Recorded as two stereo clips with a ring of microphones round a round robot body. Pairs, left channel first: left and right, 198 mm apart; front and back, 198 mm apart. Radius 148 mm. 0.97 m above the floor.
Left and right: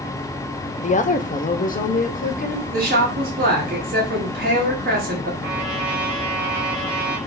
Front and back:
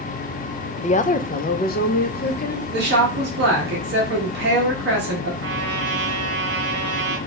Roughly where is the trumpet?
Behind.